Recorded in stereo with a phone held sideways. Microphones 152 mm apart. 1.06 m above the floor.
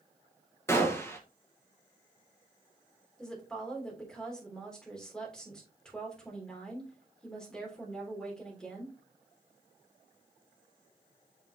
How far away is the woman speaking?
About 3 m.